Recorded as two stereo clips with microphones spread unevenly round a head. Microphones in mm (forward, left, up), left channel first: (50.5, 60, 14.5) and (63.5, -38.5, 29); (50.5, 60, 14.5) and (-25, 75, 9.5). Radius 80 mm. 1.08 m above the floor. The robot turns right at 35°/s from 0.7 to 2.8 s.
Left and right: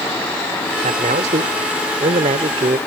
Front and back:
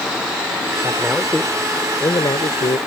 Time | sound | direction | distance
0.8 | a man speaking | 115° right | ?